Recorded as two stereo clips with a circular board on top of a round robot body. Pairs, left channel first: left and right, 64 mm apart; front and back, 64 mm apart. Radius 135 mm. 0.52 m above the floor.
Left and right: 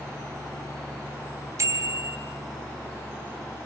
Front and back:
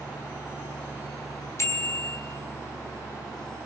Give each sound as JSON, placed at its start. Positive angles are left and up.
{"t": 1.6, "sound": "a bicycle bell", "azimuth_deg": -45, "distance_m": 3.5}